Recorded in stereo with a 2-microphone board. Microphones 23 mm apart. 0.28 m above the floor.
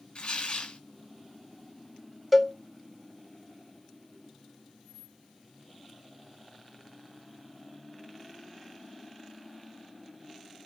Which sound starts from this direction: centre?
A cowbell, at 2.3 s.